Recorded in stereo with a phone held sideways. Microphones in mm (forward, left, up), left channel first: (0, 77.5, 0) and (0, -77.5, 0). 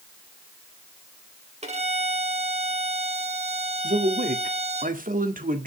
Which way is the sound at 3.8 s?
60° right (ahead or behind).